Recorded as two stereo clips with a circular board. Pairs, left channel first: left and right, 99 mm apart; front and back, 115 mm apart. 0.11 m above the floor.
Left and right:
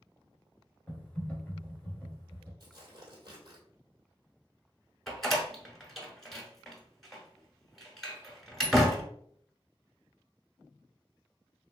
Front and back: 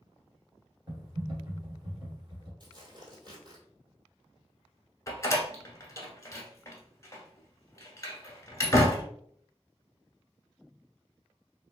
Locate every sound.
0.9 s typing on a keyboard: 160° left, 1.7 m
2.6 s tearing paper: 135° right, 1.7 m
5.1 s a door slam: 5° left, 0.9 m